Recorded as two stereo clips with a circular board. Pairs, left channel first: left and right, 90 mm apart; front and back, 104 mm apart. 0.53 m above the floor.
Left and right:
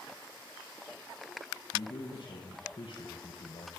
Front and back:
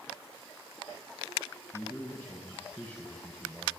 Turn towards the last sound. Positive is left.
turn(degrees=80)